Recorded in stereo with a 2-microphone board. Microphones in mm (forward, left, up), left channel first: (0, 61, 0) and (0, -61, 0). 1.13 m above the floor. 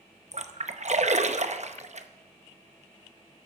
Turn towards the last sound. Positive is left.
turn(degrees=-70)  # may be behind; listen again after turning